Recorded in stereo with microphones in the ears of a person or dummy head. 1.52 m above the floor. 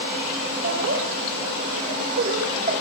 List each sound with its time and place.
0.6 s laughter: 70° right (ahead or behind), 5 m; by 2.7 s 50° right (ahead or behind), 4.5 m